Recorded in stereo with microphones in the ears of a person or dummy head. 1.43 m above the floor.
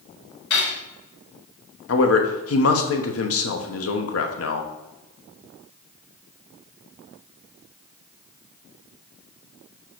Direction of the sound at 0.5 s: 70° left (ahead or behind).